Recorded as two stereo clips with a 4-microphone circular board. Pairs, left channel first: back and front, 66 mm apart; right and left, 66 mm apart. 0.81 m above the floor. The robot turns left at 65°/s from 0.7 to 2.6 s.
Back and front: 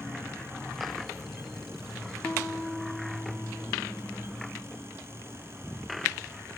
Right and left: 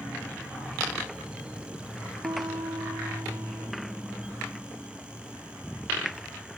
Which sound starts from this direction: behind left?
A piano, at 2.2 s.